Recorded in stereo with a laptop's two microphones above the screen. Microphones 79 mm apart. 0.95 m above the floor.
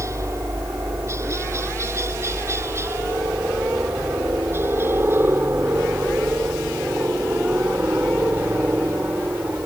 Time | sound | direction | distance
0.0 | a helicopter | 40° right (ahead or behind) | ?